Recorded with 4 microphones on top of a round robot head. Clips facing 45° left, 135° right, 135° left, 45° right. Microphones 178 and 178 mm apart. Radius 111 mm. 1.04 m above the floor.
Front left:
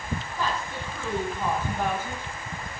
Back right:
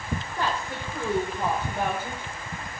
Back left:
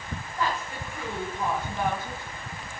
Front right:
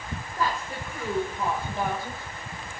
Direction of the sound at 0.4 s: 110° right.